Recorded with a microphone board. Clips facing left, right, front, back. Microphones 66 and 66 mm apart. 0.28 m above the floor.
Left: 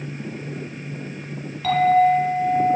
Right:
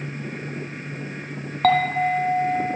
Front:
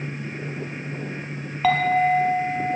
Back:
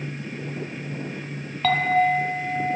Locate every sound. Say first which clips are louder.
1.6 s a clink: left 3 dB, front 1 dB; 80° right, 1.2 m